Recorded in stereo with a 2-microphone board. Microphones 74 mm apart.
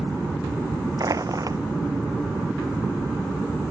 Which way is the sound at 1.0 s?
50° right (ahead or behind).